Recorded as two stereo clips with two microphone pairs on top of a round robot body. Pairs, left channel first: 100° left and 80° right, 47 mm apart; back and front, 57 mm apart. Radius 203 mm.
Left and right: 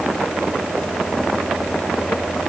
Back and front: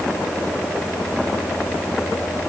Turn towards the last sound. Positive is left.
No sound to turn to.